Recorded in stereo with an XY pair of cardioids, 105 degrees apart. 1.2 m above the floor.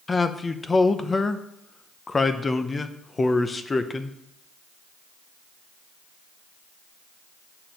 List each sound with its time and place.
0.1 s a man speaking: 25° left, 0.6 m